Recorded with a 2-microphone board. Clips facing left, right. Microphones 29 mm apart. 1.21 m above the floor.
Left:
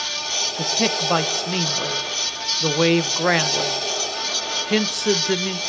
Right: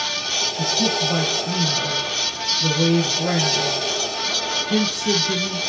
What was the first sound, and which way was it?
A man speaking, 75° left (ahead or behind).